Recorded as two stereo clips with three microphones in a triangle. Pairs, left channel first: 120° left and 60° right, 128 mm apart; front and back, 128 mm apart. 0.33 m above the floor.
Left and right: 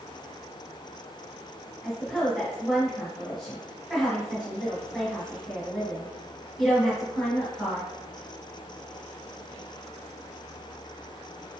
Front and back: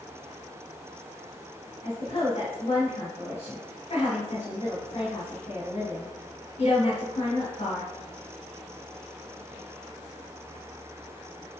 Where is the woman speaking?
30° left, 2.5 m.